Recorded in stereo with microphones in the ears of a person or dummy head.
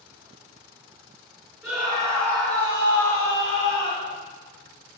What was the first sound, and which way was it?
A scream, centre (ahead or behind).